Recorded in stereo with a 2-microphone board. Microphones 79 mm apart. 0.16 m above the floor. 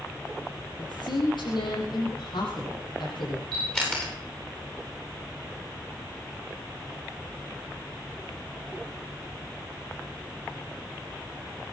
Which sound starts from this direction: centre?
A camera shutter, at 3.5 s.